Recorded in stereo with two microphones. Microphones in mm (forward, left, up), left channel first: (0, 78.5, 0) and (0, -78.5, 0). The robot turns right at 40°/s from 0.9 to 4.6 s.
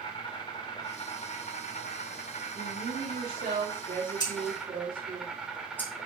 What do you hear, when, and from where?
0.0 s an insect: 35° left, 3 m; by 6.1 s 175° right, 3 m
2.5 s a woman speaking: 120° right, 3.5 m; by 5.2 s 35° right, 3.5 m
4.2 s scissors: 25° left (ahead or behind), 3.5 m; by 5.9 s 10° left (ahead or behind), 3.5 m